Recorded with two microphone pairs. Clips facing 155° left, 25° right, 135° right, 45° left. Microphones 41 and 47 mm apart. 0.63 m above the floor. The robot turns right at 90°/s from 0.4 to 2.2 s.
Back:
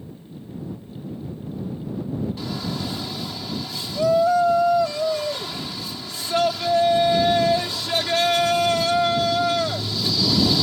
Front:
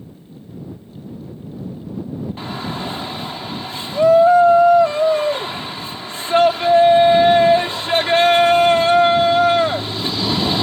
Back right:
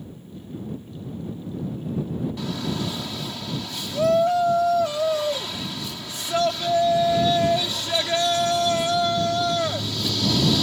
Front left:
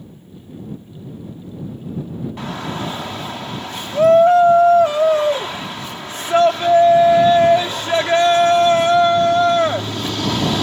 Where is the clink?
I don't hear a clink.